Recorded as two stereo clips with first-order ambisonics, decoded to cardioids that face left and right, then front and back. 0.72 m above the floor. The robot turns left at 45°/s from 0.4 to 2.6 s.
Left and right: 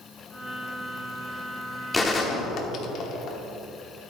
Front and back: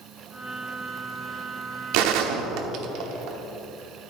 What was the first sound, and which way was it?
A gunshot, 170° left.